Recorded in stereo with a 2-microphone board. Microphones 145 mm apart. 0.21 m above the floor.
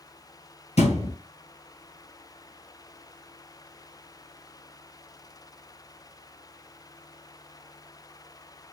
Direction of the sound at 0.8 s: 55° left (ahead or behind).